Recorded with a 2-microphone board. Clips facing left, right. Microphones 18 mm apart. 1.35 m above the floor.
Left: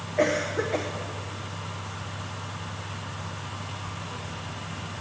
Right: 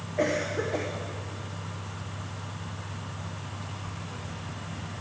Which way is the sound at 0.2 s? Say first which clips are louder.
Left 3 dB; 20° left (ahead or behind).